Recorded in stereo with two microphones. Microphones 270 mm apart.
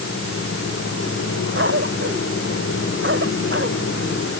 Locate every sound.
1.6 s a cough: 45° right (ahead or behind)